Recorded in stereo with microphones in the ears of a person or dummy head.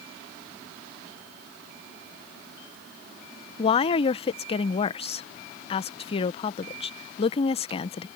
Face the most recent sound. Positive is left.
turn(degrees=35)  # may be behind; listen again after turning